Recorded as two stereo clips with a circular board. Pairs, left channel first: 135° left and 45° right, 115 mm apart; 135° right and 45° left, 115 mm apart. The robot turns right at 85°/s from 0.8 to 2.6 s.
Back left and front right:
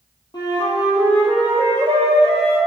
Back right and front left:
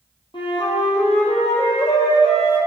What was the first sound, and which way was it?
A flute, straight behind.